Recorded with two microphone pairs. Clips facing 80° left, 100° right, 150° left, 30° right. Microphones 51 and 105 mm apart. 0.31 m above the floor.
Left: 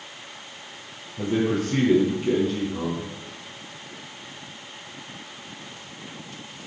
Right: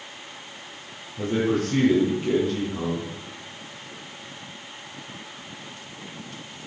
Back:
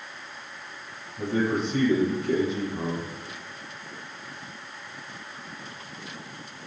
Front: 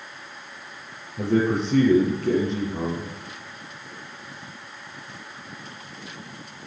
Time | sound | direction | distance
1.2 | a man speaking | 10° right | 6.5 m